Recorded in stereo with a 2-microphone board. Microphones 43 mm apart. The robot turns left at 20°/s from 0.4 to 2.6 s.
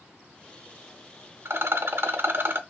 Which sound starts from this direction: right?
A rattle, at 1.4 s.